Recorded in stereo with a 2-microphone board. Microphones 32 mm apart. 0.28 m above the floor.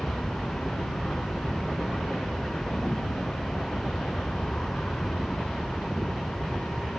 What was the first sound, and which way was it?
An aircraft, 25° left (ahead or behind).